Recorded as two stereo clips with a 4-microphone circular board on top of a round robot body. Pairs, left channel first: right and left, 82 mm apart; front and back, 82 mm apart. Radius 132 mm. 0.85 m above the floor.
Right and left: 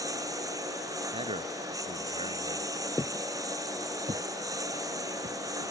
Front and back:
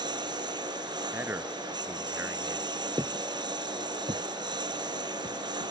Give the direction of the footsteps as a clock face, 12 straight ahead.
5 o'clock.